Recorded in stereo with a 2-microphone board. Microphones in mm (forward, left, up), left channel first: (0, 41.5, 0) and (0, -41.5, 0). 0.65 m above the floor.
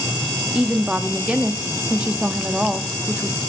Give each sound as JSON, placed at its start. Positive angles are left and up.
{"t": 0.5, "sound": "a woman speaking", "side_deg": -15, "distance_m": 1.1}